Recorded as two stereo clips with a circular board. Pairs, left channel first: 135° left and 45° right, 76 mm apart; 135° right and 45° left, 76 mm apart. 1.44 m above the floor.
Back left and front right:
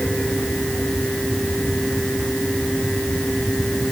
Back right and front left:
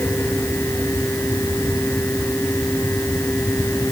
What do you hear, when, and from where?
Only background noise.